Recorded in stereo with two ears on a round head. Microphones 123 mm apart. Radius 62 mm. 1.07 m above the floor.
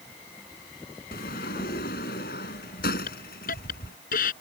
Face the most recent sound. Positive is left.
turn(degrees=70)  # may be behind; listen again after turning